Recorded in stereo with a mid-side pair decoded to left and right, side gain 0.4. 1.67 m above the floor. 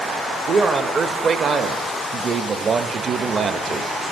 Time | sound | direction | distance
0.5 | a man speaking | 55° right | 0.6 m